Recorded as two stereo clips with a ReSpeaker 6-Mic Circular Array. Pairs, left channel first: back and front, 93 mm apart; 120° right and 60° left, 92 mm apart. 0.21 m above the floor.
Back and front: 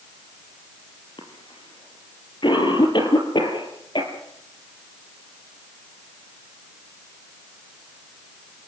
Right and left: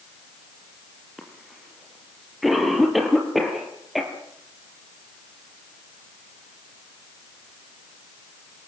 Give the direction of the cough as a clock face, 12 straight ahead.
7 o'clock.